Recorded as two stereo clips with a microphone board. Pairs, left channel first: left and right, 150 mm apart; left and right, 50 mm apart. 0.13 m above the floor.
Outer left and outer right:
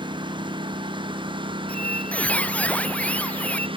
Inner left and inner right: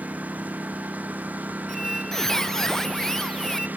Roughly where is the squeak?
Centre.